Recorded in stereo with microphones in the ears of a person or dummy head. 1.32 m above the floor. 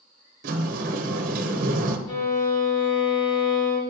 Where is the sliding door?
50° right (ahead or behind), 1.1 m.